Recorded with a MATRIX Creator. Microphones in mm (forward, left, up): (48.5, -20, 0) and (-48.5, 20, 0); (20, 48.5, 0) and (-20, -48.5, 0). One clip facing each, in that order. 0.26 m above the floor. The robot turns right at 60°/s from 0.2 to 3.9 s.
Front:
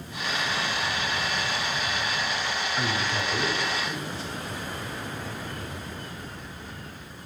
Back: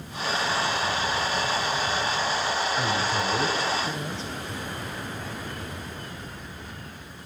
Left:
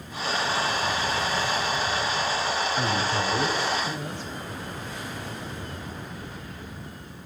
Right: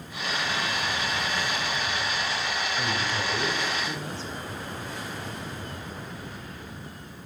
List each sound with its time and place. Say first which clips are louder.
2.8 s a man speaking: back 3 dB, left 3 dB; 60° left, 1.0 m; by 4.3 s 130° left, 1.0 m